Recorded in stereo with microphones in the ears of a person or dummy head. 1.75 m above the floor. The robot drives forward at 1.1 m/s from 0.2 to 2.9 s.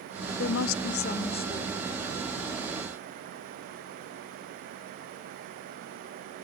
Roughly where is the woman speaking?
Left.